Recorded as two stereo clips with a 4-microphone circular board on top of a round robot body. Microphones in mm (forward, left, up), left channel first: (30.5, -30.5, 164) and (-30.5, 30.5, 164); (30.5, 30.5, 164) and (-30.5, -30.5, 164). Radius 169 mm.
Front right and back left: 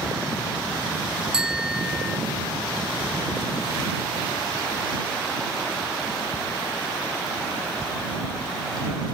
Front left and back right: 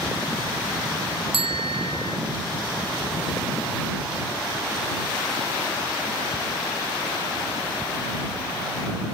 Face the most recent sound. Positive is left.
turn(degrees=-140)